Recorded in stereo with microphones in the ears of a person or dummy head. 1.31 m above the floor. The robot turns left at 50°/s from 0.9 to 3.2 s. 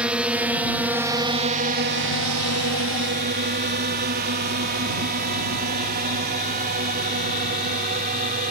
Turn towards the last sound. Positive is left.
turn(degrees=-45)  # may be behind; listen again after turning